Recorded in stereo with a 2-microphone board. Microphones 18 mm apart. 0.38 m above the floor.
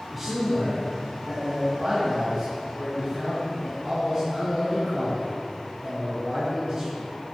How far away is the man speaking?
About 3.5 m.